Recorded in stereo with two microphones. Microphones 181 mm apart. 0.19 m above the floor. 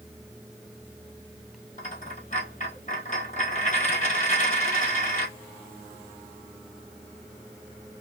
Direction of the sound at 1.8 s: 45° left (ahead or behind).